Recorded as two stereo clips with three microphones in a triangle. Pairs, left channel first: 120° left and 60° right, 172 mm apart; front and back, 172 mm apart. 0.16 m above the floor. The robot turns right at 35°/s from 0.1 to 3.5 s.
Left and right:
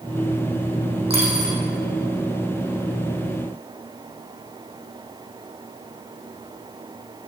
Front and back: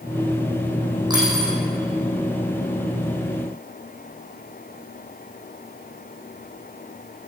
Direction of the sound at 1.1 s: 115° right.